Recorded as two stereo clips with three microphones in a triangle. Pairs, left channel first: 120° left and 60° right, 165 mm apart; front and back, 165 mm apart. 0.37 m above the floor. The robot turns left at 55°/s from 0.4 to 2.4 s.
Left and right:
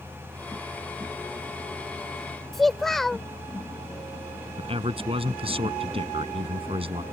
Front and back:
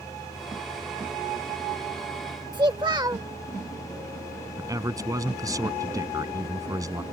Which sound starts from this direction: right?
A man speaking, at 4.6 s.